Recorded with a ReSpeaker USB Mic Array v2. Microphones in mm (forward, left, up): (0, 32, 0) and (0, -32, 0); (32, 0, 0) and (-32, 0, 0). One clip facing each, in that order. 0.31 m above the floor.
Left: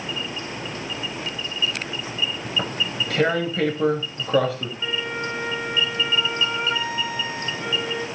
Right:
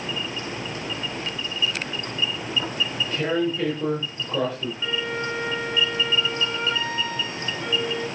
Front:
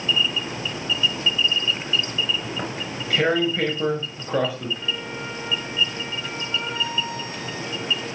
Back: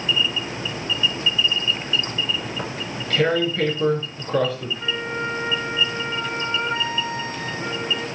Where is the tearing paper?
80° left, 6 m.